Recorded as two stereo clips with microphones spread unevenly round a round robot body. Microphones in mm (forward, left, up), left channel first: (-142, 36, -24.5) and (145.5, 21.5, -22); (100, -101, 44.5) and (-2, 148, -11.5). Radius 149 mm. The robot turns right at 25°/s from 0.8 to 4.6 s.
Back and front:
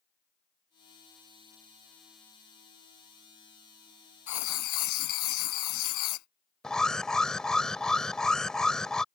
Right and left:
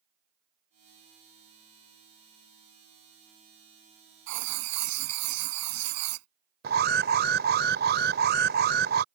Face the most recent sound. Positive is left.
turn(degrees=90)